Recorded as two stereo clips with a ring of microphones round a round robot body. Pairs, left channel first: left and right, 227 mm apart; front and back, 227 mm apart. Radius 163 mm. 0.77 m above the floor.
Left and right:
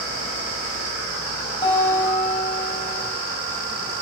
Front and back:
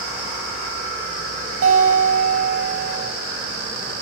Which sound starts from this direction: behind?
A guitar, at 1.6 s.